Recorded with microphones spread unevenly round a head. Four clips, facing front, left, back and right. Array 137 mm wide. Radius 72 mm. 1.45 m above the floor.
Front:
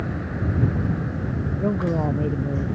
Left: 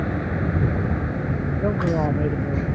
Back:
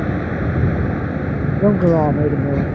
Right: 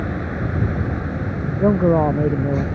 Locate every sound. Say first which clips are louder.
0.0 s a vehicle: even, back 7 dB; 175° left; by 2.8 s straight behind
1.6 s a man speaking: right 8 dB, back 10 dB; 160° right